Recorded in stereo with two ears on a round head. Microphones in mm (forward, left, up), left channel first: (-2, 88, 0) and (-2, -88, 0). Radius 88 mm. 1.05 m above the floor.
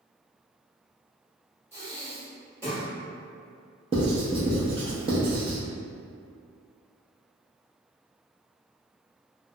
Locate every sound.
1.7 s breathing: 15° right (ahead or behind), 1.6 m
3.9 s writing: 30° right (ahead or behind), 0.6 m